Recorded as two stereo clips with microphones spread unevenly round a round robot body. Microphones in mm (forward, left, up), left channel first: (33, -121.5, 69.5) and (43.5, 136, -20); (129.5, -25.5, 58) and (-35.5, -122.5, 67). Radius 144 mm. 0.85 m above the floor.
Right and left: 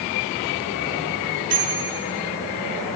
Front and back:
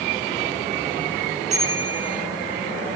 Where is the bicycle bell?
145° left, 8 m.